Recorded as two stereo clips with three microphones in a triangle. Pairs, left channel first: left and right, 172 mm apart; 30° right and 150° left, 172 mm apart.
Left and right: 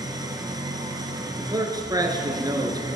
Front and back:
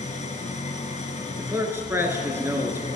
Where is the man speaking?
140° right, 1.3 m.